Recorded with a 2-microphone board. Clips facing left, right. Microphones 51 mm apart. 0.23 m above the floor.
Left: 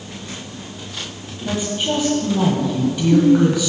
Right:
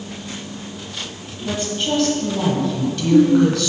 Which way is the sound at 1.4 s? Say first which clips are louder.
Left 1 dB; 15° left (ahead or behind).